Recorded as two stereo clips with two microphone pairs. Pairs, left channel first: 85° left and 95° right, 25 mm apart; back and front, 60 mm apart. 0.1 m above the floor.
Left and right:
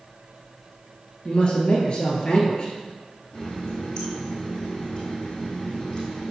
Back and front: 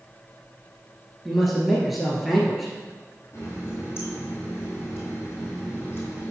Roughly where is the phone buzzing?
I don't hear a phone buzzing.